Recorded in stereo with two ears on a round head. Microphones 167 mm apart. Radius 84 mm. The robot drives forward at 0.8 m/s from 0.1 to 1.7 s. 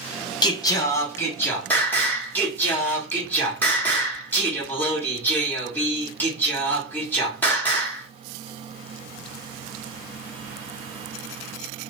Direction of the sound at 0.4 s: 20° left (ahead or behind).